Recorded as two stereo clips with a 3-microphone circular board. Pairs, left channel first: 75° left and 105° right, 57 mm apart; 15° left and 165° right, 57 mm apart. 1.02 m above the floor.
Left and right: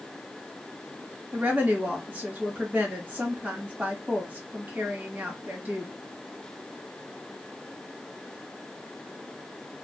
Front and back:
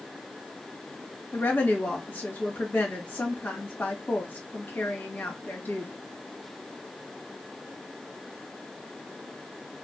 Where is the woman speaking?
45° right, 1.2 m.